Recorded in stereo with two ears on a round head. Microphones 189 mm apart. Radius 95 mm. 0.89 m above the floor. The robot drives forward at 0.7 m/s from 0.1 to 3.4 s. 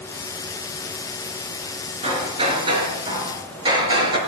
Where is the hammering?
30° right (ahead or behind), 3.5 m; by 4.2 s 25° right (ahead or behind), 4 m.